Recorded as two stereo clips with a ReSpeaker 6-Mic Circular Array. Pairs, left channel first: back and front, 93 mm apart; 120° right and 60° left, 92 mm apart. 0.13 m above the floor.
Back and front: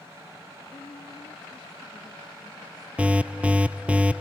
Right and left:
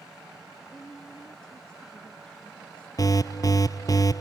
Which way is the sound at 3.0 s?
75° right.